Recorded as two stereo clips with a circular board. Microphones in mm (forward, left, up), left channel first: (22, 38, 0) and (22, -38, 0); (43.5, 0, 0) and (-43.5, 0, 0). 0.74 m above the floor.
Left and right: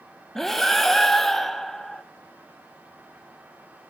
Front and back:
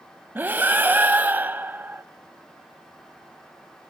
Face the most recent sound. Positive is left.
turn(degrees=175)